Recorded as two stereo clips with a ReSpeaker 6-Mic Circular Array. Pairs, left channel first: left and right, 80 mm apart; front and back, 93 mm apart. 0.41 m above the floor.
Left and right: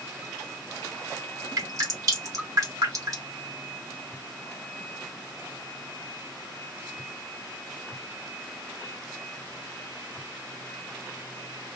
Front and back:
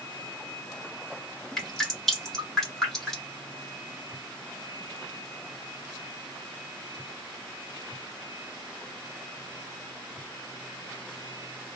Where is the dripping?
85° right, 1.2 m.